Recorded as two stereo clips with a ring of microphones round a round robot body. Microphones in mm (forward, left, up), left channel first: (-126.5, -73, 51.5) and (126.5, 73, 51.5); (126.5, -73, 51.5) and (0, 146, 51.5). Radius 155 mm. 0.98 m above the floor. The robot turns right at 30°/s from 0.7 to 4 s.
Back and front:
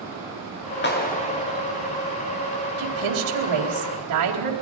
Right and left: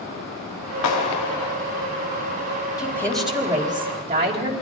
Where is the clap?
95° right, 3 m; by 1.6 s 70° right, 3 m.